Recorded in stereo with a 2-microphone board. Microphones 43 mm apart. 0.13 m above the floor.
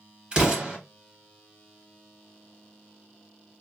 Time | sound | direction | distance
0.3 | an explosion | 20° right (ahead or behind) | 1.9 m